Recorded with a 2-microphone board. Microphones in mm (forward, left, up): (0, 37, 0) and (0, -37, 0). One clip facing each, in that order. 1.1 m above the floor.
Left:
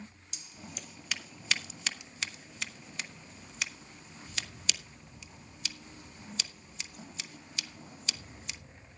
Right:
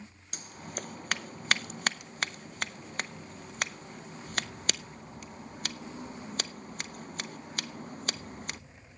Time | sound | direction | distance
0.3 | scissors | 55° right (ahead or behind) | 0.5 m